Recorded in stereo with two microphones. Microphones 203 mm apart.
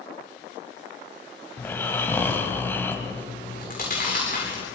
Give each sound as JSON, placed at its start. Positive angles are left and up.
{"t": 1.6, "sound": "snoring", "side_deg": 10, "distance_m": 2.5}
{"t": 3.4, "sound": "chewing", "side_deg": 40, "distance_m": 9.0}